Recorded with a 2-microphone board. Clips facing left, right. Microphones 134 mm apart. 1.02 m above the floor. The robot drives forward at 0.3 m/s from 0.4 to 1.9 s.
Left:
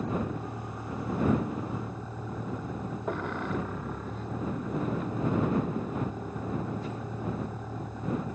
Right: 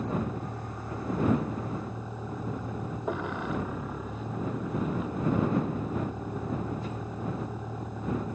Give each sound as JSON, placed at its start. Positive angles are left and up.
{"t": 0.0, "sound": "a vehicle", "side_deg": -5}